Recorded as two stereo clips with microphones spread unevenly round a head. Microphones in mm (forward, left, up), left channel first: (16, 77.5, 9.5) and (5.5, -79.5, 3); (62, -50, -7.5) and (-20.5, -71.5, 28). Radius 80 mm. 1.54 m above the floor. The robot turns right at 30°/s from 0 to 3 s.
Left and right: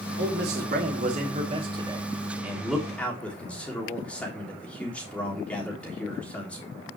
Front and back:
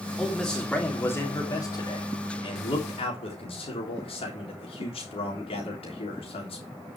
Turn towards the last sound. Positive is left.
turn(degrees=5)